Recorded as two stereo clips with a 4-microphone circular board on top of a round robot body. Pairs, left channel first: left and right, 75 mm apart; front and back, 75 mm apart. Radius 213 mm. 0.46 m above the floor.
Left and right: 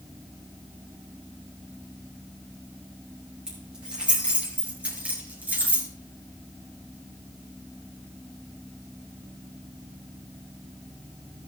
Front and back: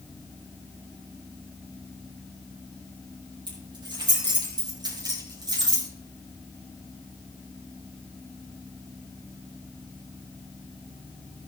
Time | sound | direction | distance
3.5 | keys jangling | 170° right | 7.5 m